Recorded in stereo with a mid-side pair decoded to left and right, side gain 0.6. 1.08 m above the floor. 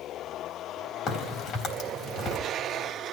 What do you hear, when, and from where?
1.1 s a crack: 55° left, 3.5 m